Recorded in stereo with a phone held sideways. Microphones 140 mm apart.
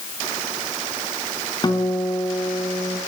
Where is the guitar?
30° left (ahead or behind), 3.5 m.